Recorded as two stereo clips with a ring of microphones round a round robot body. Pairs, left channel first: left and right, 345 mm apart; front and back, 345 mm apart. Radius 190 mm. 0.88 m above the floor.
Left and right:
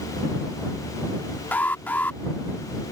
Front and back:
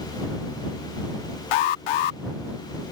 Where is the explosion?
No explosion in this recording.